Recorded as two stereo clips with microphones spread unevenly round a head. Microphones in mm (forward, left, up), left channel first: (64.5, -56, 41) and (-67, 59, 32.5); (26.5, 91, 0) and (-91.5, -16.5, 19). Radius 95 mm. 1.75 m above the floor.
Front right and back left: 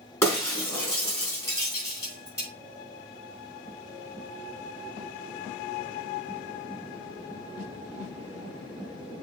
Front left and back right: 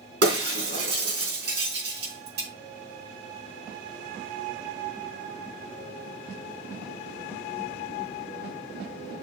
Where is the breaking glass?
115° right, 4.5 m.